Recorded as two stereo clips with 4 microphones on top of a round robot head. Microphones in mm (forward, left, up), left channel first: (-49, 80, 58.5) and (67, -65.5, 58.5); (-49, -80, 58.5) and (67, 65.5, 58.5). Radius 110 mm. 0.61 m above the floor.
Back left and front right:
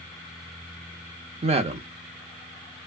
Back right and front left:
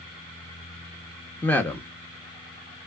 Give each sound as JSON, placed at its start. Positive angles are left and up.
{"t": 1.4, "sound": "a man speaking", "azimuth_deg": -55, "distance_m": 0.6}